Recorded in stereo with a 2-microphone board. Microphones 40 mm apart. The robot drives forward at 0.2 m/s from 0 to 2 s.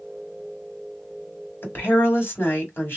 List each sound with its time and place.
1.6 s a woman speaking: 80° left, 2 m; by 3.0 s 85° left, 2 m